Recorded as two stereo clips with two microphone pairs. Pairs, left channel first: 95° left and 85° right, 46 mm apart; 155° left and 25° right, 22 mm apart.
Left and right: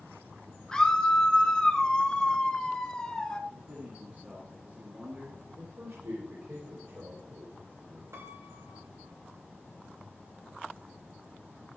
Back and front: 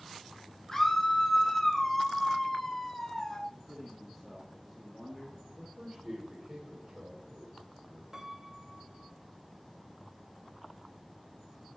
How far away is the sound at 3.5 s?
About 2 m.